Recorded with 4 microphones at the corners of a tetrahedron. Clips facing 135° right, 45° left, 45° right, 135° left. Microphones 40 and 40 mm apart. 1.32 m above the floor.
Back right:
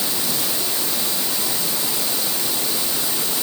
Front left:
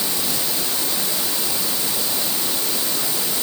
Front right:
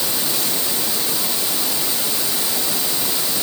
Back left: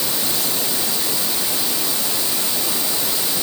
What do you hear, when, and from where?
Only background noise.